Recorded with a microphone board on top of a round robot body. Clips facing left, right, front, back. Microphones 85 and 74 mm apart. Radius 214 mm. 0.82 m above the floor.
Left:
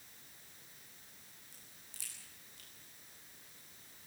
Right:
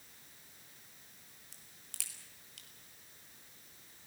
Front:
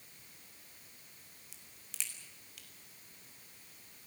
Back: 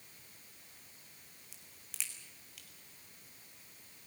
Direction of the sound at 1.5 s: 90° right.